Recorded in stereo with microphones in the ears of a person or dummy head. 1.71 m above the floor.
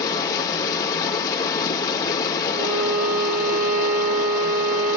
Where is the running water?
25° left (ahead or behind), 2 m.